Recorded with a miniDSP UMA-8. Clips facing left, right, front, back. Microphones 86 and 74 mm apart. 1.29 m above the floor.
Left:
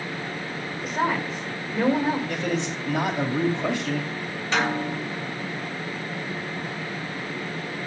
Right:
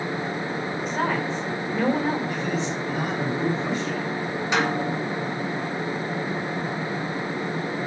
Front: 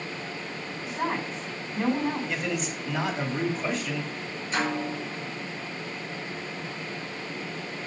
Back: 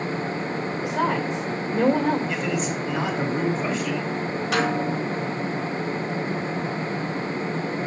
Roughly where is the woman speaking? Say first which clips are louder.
Left 1 dB, back 5 dB; behind.